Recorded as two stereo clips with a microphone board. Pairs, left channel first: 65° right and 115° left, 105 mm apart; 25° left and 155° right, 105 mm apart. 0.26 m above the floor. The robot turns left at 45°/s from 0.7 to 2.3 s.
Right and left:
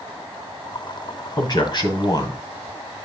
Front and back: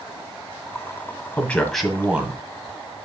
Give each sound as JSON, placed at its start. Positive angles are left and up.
{"t": 1.4, "sound": "a man speaking", "azimuth_deg": -45, "distance_m": 1.6}